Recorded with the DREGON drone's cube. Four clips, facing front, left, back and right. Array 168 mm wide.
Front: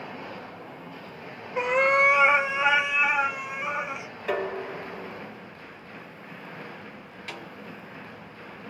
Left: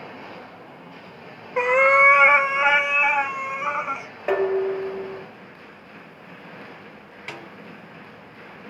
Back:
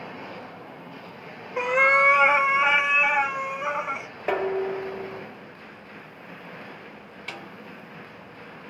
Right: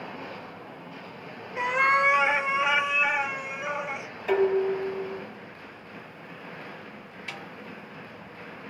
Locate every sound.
1.6 s a cat meowing: 95° left, 1.0 m; by 4.1 s 115° left, 3.5 m
4.3 s dishes clattering: 130° left, 1.7 m
7.3 s a snare drum: 120° left, 3.5 m